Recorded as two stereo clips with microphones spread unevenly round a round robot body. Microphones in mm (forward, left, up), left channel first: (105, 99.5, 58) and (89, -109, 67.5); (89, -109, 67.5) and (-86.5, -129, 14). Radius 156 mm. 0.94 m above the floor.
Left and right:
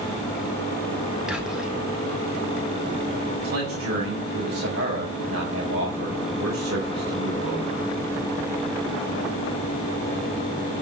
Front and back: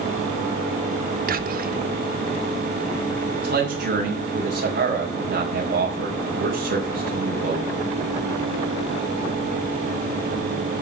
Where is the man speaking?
150° right, 4.5 m.